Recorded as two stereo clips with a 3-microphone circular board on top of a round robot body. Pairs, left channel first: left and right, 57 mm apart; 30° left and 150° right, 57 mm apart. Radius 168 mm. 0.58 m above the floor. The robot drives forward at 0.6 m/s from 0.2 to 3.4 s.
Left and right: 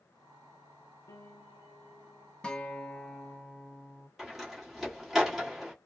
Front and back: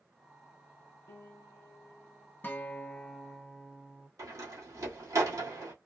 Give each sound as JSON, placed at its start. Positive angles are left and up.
{"t": 1.1, "sound": "a piano", "azimuth_deg": 65, "distance_m": 0.9}
{"t": 2.4, "sound": "a guitar", "azimuth_deg": 35, "distance_m": 1.1}
{"t": 4.2, "sound": "a door slam", "azimuth_deg": -175, "distance_m": 1.9}